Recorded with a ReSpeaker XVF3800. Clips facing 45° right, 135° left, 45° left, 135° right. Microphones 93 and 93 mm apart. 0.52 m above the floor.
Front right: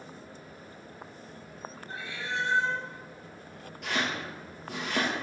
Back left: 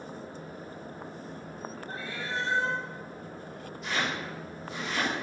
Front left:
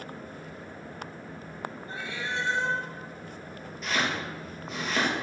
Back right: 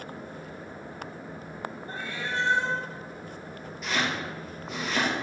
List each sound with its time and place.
1.9 s a cat meowing: straight behind, 2 m
3.8 s chopping: 45° right, 3 m